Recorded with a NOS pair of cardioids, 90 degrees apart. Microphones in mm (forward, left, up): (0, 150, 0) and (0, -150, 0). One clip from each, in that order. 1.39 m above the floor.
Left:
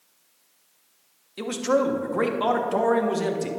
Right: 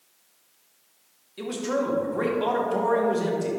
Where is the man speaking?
30° left, 1.3 m.